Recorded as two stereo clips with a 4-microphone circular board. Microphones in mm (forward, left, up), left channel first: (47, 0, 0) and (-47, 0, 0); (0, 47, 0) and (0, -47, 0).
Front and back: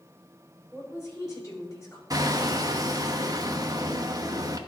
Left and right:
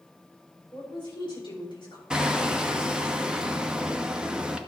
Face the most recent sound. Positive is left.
turn(degrees=-165)